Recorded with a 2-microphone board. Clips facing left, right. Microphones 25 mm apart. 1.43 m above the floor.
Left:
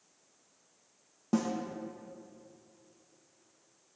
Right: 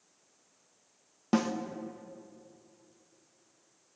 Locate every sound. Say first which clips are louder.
1.3 s a snare drum: right 2 dB; 55° right (ahead or behind), 1.0 m